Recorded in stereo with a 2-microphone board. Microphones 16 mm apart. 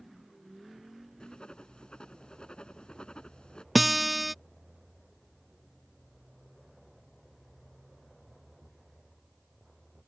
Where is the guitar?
5° right (ahead or behind).